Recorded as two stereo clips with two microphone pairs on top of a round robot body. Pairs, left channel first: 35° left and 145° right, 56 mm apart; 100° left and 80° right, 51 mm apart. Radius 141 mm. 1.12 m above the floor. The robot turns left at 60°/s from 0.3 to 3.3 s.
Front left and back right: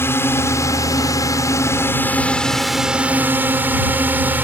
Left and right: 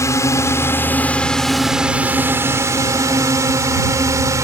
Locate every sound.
0.0 s a drone: 80° left; by 4.4 s 85° right